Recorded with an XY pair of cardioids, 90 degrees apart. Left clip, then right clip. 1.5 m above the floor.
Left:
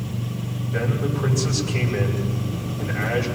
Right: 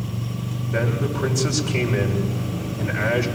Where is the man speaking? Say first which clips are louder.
Right 2 dB; 70° right, 7 m.